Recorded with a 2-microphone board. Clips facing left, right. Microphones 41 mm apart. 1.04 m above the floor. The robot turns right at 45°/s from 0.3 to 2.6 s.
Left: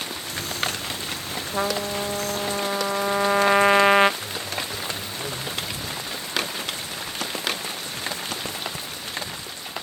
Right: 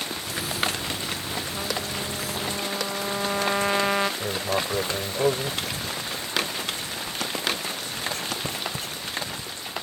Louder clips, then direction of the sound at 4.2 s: Right 4 dB; 65° right (ahead or behind).